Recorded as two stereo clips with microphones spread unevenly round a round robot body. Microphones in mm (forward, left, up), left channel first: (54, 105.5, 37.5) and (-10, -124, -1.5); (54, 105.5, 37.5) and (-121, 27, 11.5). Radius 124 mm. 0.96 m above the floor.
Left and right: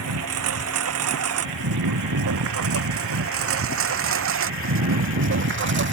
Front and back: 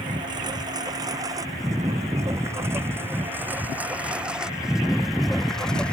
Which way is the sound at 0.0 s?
80° right.